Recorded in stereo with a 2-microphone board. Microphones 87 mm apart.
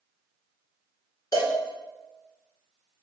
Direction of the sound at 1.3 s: 50° left (ahead or behind).